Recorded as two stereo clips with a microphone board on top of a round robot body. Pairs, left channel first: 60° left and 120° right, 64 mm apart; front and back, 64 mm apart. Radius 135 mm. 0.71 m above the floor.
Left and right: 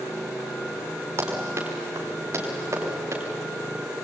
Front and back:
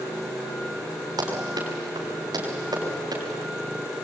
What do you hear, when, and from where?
1.2 s running footsteps: 170° right, 7.5 m; by 3.2 s 160° right, 8.5 m